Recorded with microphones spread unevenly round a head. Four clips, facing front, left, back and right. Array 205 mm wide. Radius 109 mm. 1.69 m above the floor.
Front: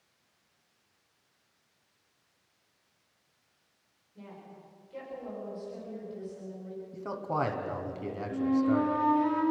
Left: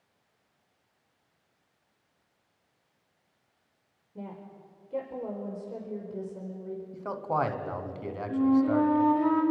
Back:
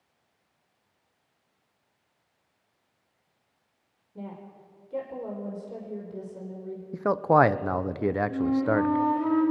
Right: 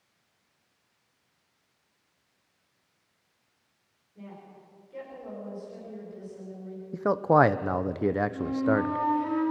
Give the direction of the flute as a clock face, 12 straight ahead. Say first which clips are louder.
Left 3 dB, front 3 dB; 8 o'clock.